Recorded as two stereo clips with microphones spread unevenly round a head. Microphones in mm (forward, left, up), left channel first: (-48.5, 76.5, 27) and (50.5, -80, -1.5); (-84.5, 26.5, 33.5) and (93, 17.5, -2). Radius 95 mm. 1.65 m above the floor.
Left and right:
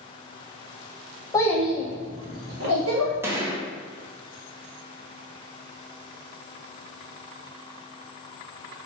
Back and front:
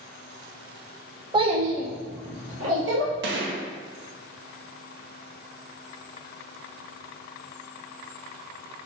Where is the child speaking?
65° left, 0.8 m; by 3.1 s 35° right, 1.4 m.